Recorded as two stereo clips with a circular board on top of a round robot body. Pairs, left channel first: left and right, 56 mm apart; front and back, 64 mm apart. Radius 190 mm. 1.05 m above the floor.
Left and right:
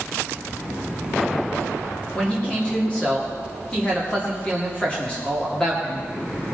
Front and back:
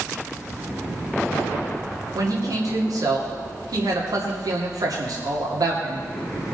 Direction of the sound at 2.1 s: 160° left.